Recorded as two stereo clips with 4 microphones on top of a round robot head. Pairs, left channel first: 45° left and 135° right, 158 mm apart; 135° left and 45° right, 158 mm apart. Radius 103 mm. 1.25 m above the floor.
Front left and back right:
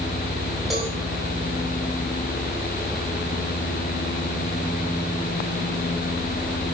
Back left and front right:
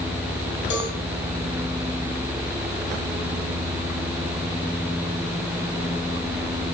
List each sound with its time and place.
0.7 s a cowbell: 135° left, 6.5 m